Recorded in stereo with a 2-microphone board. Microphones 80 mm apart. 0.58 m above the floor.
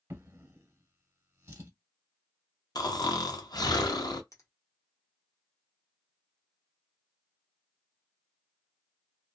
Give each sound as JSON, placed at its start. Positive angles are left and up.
{"t": 0.1, "sound": "a drawer", "side_deg": -40, "distance_m": 0.9}
{"t": 2.8, "sound": "snoring", "side_deg": 55, "distance_m": 0.5}
{"t": 4.3, "sound": "a finger snap", "side_deg": 40, "distance_m": 1.0}